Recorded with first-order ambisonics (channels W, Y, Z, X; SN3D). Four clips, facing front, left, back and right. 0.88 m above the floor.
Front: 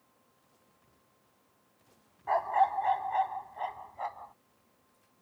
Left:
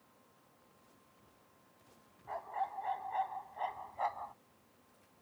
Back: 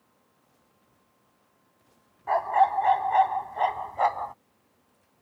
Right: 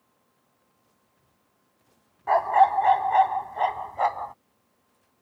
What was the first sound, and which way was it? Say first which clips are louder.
A dog barking: right 21 dB, back 5 dB; 105° right.